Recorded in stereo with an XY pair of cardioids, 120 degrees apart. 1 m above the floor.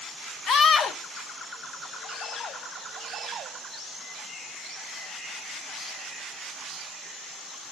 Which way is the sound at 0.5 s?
50° left.